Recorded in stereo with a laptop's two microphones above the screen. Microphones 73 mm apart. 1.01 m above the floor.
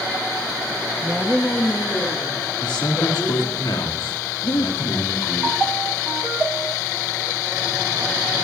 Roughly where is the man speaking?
Left.